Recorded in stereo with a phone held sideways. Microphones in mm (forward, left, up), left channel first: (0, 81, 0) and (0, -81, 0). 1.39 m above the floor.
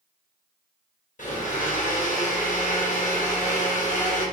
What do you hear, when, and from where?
1.2 s a blender: 60° left (ahead or behind), 1.3 m